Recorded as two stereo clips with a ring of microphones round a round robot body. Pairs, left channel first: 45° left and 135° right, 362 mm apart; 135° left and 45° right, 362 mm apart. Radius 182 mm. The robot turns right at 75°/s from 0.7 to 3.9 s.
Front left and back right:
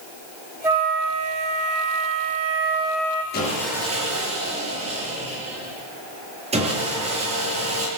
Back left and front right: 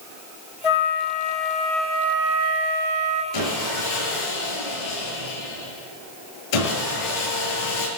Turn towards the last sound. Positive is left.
turn(degrees=150)